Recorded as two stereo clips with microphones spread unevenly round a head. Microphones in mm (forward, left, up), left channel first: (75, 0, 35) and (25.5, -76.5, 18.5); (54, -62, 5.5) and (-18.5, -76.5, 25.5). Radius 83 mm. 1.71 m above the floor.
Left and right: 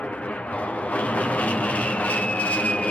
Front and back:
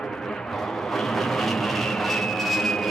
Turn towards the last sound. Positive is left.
turn(degrees=-15)